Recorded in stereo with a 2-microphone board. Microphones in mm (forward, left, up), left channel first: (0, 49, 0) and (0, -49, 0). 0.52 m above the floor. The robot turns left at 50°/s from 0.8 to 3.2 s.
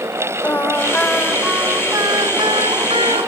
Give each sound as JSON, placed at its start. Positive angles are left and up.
{"t": 0.4, "sound": "singing", "azimuth_deg": 20, "distance_m": 2.0}